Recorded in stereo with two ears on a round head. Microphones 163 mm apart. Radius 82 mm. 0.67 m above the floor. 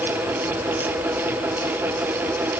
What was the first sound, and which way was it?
Only background noise.